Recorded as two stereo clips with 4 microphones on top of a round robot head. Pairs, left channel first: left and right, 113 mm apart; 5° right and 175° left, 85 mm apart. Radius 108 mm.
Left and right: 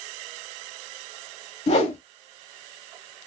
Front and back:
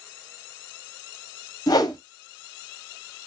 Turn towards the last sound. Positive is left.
turn(degrees=40)